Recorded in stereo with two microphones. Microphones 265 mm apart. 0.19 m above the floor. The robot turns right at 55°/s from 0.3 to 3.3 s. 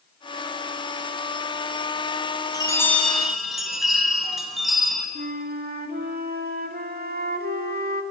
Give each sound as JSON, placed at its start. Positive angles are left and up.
{"t": 2.5, "sound": "a chime", "side_deg": 15, "distance_m": 1.6}
{"t": 5.2, "sound": "a flute", "side_deg": -35, "distance_m": 0.7}